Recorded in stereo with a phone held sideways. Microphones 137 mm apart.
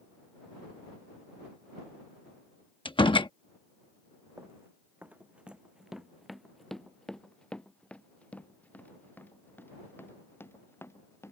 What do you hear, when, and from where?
2.9 s a door slam: 40° left (ahead or behind)
4.4 s running footsteps: 20° right (ahead or behind); by 11.3 s 20° left (ahead or behind)